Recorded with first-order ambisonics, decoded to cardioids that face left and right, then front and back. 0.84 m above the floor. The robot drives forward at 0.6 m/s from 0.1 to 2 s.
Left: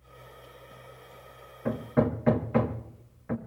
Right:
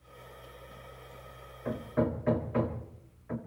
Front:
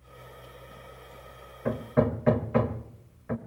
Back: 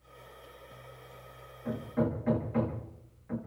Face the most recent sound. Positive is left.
turn(degrees=45)